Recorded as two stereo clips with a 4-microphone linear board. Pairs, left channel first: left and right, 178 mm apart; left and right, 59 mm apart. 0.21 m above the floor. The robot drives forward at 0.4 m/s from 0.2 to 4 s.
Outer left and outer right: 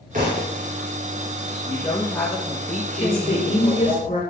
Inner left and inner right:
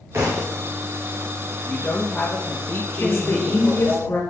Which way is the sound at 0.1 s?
45° right (ahead or behind).